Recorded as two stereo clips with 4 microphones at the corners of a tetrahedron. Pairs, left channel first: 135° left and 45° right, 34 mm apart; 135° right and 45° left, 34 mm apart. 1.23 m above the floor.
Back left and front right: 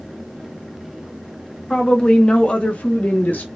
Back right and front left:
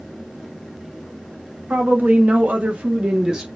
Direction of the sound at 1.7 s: 60° left.